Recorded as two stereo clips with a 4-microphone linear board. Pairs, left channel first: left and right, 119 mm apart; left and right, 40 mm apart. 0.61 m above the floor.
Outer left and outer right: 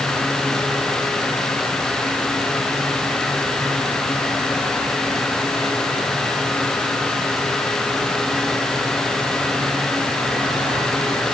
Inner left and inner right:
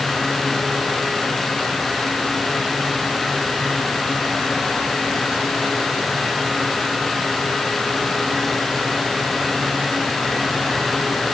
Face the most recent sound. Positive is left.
No sound to turn to.